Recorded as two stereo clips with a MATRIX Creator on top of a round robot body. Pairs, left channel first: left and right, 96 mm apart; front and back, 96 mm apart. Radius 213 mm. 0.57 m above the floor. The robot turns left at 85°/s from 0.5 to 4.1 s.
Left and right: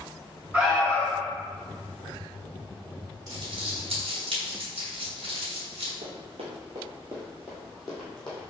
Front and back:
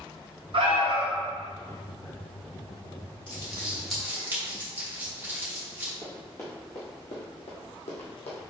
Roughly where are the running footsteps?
Right.